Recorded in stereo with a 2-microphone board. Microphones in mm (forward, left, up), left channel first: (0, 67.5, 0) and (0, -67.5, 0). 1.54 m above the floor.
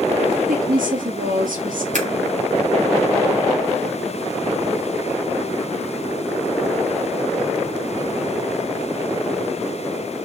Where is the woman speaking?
85° right, 3 m.